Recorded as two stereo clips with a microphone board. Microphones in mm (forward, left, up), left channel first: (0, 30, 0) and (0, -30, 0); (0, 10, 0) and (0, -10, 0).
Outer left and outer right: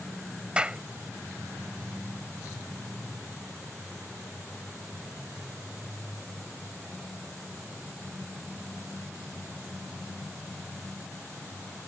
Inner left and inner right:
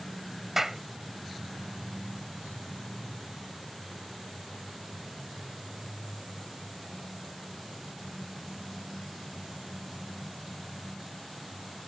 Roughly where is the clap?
Centre.